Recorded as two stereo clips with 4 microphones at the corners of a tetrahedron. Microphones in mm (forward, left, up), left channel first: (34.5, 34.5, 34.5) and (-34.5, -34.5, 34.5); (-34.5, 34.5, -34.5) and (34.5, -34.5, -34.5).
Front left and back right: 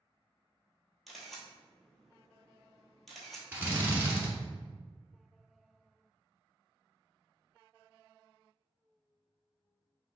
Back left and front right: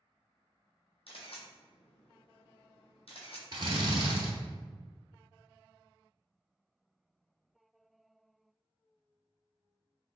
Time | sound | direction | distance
1.1 | a camera shutter | 135° left | 1.1 m
3.5 | a drill | 70° right | 1.0 m